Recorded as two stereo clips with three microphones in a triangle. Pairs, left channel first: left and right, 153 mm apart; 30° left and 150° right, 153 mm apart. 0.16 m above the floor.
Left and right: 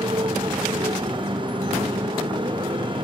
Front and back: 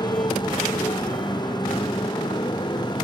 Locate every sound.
0.0 s a motorcycle: 30° right